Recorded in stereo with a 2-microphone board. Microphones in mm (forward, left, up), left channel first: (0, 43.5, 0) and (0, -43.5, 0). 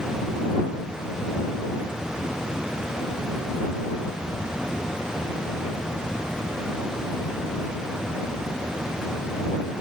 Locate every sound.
Only background noise.